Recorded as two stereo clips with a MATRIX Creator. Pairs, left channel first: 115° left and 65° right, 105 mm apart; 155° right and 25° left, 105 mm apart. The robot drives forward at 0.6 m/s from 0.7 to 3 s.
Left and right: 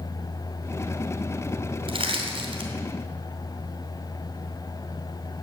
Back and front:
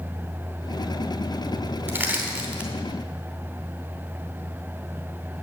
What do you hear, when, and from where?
1.9 s crushing: 45° right, 2.5 m; by 2.7 s 60° right, 2 m